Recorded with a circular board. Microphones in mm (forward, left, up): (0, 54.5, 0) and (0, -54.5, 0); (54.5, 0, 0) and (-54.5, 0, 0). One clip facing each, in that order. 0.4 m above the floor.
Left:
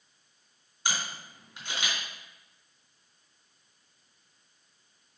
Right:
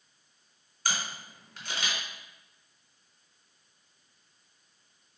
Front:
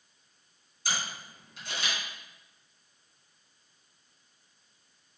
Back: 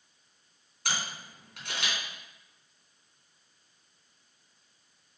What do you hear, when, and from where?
0.8 s a camera shutter: 165° left, 3.5 m